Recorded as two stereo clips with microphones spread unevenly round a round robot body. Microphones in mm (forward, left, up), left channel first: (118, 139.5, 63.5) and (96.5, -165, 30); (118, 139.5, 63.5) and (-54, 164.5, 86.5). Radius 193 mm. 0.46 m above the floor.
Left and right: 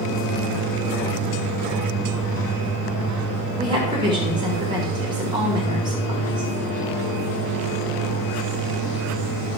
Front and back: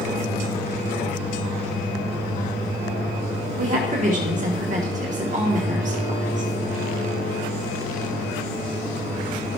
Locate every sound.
3.6 s a woman speaking: 160° right, 1.9 m